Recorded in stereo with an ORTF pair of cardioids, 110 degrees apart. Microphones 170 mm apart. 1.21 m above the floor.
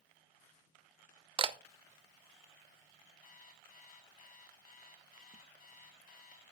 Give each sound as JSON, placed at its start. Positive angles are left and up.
{"t": 1.4, "sound": "a camera shutter", "azimuth_deg": -30, "distance_m": 0.6}
{"t": 3.2, "sound": "an alarm clock", "azimuth_deg": 55, "distance_m": 4.5}